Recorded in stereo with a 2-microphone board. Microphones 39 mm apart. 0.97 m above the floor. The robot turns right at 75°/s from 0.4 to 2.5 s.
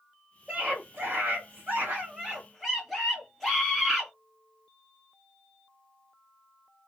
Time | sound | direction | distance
0.5 | a scream | 150° right | 1.9 m